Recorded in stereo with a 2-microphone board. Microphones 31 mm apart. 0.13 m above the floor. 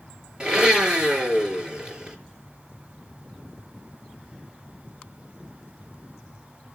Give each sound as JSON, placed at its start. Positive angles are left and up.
{"t": 0.4, "sound": "a blender", "side_deg": -30, "distance_m": 2.5}